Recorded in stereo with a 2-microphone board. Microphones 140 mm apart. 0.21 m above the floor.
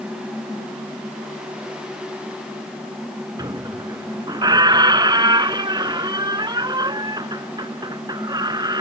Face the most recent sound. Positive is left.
turn(degrees=-30)  # may be behind; listen again after turning